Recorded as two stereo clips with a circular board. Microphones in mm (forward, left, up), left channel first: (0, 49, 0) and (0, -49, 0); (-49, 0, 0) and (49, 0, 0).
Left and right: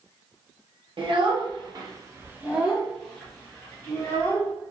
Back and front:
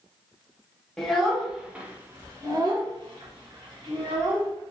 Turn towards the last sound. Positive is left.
turn(degrees=30)